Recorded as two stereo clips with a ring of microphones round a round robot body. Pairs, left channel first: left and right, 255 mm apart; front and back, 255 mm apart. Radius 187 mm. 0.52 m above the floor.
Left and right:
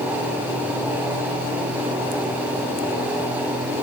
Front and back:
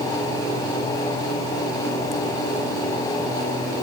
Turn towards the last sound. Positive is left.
No sound to turn to.